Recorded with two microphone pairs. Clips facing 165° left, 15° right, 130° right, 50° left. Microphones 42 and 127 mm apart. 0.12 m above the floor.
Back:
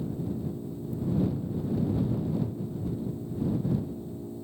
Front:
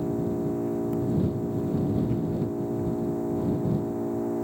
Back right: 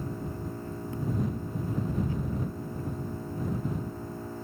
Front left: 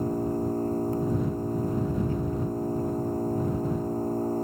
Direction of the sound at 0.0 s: Straight ahead.